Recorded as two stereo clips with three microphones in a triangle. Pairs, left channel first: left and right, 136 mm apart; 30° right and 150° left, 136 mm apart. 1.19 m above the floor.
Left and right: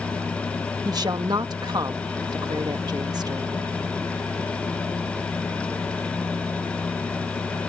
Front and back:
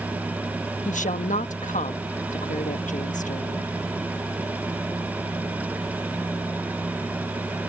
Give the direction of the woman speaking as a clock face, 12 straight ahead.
1 o'clock.